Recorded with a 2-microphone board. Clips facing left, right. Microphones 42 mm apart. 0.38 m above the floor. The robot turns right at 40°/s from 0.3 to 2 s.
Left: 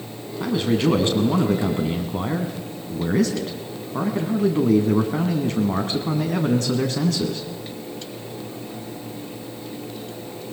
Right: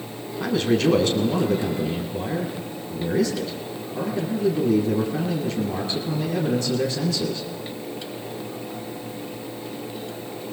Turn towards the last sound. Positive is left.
turn(degrees=70)